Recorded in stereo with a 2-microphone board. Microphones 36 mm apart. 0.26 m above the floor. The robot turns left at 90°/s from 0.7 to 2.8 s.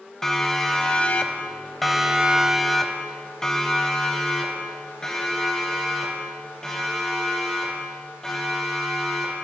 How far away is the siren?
About 2 m.